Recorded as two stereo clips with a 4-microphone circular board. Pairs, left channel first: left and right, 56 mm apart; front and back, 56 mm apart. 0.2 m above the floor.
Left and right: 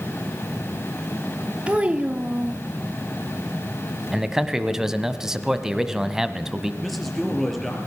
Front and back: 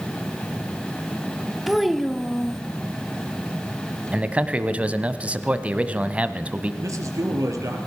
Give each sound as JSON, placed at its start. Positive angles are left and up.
{"t": 1.7, "sound": "a child speaking", "azimuth_deg": -90, "distance_m": 0.7}
{"t": 4.1, "sound": "a man speaking", "azimuth_deg": -155, "distance_m": 1.1}
{"t": 6.8, "sound": "a man speaking", "azimuth_deg": 180, "distance_m": 3.5}